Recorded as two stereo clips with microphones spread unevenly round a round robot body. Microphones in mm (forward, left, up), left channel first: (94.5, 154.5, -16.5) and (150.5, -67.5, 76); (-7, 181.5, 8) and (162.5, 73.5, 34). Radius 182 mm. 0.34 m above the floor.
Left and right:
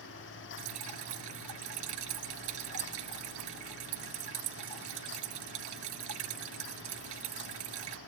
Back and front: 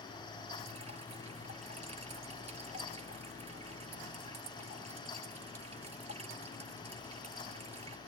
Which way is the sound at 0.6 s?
105° right.